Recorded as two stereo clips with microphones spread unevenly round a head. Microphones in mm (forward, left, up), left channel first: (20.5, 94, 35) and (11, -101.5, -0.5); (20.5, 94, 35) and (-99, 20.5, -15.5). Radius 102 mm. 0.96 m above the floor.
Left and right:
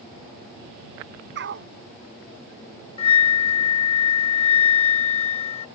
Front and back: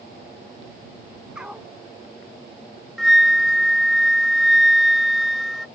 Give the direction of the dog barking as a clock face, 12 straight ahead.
2 o'clock.